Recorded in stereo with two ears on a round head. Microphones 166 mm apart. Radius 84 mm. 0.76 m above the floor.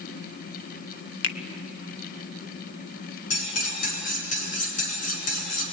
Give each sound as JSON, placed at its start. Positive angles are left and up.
{"t": 1.2, "sound": "a finger snap", "side_deg": 75, "distance_m": 1.3}
{"t": 3.3, "sound": "cutlery clinking", "side_deg": 45, "distance_m": 5.5}